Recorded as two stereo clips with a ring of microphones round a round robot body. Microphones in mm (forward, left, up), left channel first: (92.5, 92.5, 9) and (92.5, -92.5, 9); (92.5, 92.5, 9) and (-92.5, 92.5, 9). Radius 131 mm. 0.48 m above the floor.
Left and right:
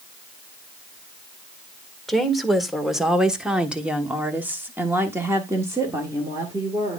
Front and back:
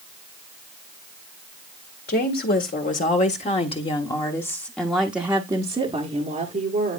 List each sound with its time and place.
2.1 s a woman speaking: straight ahead, 2 m; by 7.0 s 160° right, 1.8 m